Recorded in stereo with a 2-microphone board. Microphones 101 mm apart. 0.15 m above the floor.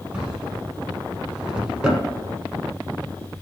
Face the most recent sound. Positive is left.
turn(degrees=-10)  # may be behind; listen again after turning